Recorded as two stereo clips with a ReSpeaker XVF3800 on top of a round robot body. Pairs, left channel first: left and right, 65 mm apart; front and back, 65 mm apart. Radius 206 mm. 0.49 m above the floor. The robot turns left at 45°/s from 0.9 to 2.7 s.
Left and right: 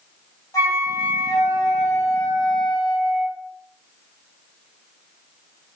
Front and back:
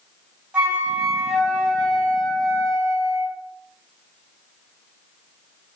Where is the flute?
115° left, 2.5 m; by 3.4 s 35° left, 2.5 m.